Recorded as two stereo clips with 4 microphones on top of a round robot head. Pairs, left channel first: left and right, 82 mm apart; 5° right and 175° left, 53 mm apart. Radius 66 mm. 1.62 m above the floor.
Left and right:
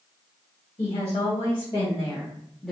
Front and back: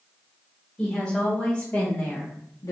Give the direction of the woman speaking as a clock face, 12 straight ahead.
10 o'clock.